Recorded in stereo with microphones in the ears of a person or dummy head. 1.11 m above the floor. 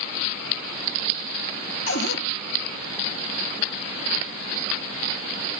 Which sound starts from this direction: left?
A cupboard door, at 1.9 s.